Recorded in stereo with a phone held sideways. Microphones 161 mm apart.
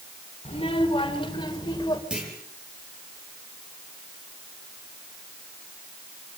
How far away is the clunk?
About 7 m.